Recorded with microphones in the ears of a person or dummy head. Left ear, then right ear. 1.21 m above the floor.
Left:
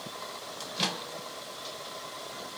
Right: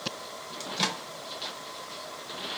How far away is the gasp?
I don't hear a gasp.